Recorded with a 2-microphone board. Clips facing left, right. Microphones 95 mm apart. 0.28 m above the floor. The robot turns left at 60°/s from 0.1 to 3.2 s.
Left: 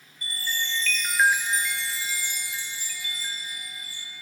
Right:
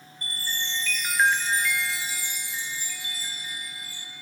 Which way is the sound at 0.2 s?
125° right.